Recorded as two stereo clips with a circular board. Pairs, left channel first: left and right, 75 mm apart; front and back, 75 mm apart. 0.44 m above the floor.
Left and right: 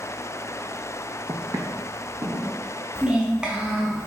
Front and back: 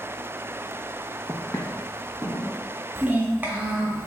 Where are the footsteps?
50° right, 0.8 m; by 2.5 s 45° right, 1.9 m.